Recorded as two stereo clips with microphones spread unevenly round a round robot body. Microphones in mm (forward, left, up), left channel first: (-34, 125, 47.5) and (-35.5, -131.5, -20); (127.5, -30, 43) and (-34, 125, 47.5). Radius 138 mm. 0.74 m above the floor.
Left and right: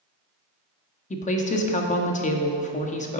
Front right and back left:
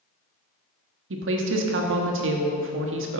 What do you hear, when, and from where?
1.1 s a woman speaking: 160° left, 1.3 m